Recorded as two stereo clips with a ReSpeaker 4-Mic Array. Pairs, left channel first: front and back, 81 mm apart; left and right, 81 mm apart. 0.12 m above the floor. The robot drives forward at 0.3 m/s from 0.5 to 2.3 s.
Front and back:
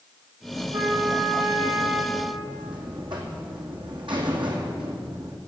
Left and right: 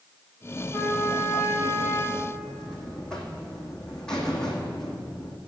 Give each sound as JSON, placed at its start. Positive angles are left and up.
{"t": 0.7, "sound": "a trumpet", "azimuth_deg": 175, "distance_m": 3.0}
{"t": 2.1, "sound": "a buzzer", "azimuth_deg": 170, "distance_m": 2.0}